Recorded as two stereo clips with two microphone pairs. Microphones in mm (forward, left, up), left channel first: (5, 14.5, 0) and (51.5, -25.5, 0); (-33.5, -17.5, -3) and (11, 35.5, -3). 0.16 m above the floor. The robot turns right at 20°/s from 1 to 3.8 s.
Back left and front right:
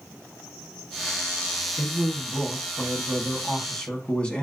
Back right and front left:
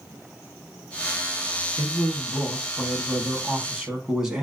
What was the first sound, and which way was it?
A man speaking, 70° left.